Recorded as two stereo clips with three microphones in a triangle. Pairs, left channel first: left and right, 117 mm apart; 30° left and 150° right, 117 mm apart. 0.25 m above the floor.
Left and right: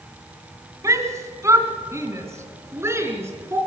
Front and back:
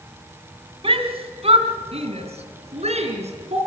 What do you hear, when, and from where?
0.8 s a shout: 145° right, 2 m; by 3.6 s 155° right, 3.5 m